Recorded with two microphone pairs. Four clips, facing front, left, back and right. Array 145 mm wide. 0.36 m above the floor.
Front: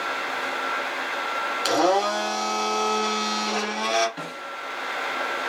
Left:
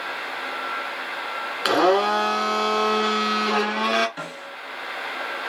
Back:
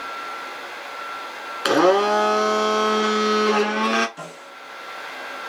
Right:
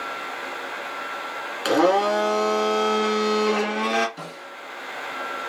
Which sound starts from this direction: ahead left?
A snare drum, at 4.2 s.